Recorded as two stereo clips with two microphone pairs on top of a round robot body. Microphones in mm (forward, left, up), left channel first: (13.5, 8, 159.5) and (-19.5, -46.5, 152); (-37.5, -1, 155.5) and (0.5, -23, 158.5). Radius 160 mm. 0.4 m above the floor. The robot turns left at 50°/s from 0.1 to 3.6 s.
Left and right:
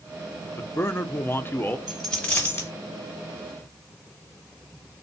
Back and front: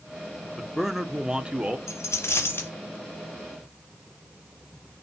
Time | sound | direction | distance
0.6 | a man speaking | 70° left | 0.8 m
1.9 | a dropped coin | 150° left | 1.4 m